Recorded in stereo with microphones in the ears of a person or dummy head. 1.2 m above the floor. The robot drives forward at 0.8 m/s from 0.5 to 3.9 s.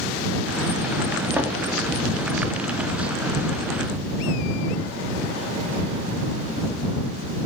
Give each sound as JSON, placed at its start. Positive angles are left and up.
{"t": 1.3, "sound": "knocking", "side_deg": -10, "distance_m": 2.5}